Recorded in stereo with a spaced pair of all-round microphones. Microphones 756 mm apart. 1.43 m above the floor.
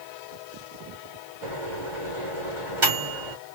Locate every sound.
1.4 s a microwave: 85° right, 3 m